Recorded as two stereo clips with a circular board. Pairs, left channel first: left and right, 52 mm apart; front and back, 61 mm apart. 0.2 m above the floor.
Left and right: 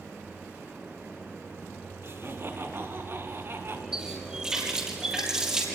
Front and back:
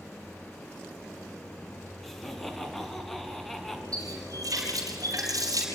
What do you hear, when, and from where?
2.0 s laughter: 85° right, 2 m
3.9 s a running tap: 165° right, 4 m